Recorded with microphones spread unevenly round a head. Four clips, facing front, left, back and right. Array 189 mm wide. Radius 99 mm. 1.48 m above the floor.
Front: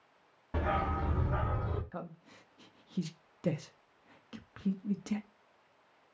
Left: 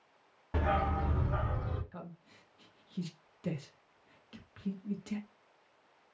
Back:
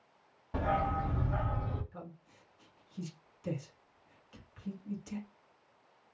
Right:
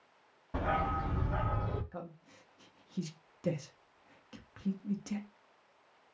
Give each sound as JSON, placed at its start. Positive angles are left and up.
{"t": 0.5, "sound": "a dog barking", "azimuth_deg": 50, "distance_m": 1.1}
{"t": 1.9, "sound": "a man speaking", "azimuth_deg": -10, "distance_m": 0.6}